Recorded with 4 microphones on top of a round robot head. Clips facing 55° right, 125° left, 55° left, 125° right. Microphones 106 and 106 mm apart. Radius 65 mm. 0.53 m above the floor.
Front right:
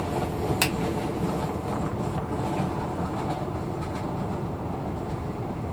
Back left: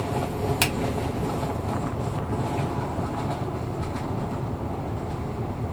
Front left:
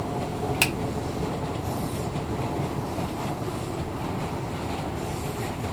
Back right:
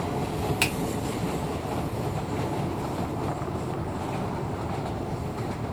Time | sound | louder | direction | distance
0.6 | a finger snap | back left 1 dB, front left 1 dB | 45° left | 0.9 m